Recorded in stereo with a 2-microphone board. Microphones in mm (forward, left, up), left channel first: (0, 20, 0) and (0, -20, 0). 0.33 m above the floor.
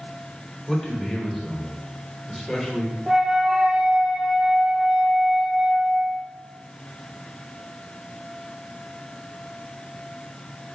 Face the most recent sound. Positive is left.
turn(degrees=-10)  # may be behind; listen again after turning